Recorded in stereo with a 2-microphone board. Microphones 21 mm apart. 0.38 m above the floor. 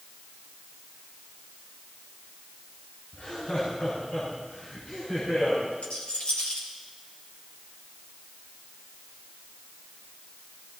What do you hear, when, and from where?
3.1 s laughter: 65° left (ahead or behind), 5.5 m; by 5.6 s 75° left (ahead or behind), 7.5 m
5.8 s a rattle: 85° left, 4 m